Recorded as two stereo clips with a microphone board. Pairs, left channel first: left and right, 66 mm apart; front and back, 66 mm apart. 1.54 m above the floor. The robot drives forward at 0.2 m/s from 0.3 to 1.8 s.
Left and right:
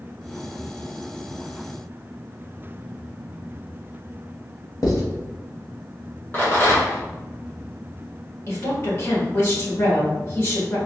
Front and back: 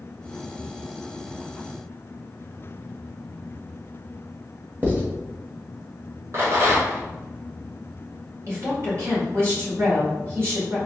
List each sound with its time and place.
4.8 s writing: 115° left, 1.0 m
6.3 s a rattle: 145° left, 1.8 m
8.5 s a woman speaking: 140° left, 2.0 m